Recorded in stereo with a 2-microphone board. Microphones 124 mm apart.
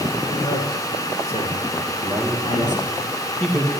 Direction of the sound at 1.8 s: 5° left (ahead or behind).